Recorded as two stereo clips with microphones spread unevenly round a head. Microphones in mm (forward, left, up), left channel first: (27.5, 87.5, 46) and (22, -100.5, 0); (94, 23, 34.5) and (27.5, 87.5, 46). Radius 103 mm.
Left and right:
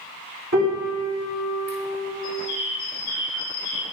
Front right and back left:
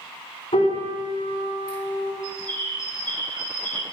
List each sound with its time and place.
0.5 s a piano: 65° right, 3.5 m
2.2 s a bird: 115° left, 1.6 m